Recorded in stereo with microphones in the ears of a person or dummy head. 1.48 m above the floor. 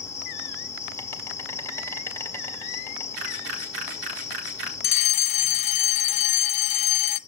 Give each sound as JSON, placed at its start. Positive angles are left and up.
{"t": 0.0, "sound": "an insect", "side_deg": 10, "distance_m": 1.9}
{"t": 3.1, "sound": "a camera shutter", "side_deg": -80, "distance_m": 5.0}
{"t": 4.8, "sound": "a fire alarm", "side_deg": 35, "distance_m": 0.9}